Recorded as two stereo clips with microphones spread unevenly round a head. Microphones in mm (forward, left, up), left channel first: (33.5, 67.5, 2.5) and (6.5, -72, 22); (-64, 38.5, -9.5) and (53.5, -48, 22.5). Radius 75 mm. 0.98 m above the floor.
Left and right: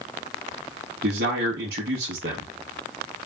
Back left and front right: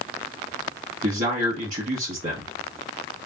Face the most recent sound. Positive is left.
turn(degrees=-85)